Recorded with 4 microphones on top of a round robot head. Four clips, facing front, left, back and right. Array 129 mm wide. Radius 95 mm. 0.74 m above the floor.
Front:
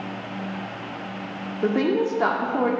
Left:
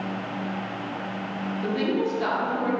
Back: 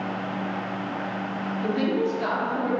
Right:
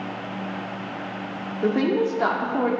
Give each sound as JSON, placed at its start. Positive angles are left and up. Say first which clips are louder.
{"t": 1.6, "sound": "a woman speaking", "louder": "right 5 dB, front 4 dB", "azimuth_deg": -35, "distance_m": 1.6}